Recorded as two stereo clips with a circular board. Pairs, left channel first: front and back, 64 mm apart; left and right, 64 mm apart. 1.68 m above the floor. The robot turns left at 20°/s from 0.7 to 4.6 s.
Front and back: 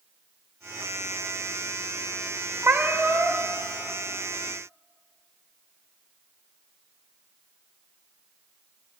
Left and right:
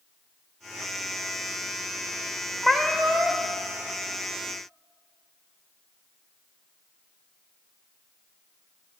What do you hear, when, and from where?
2.6 s a cat meowing: 165° right, 1.0 m; by 3.5 s 175° left, 1.0 m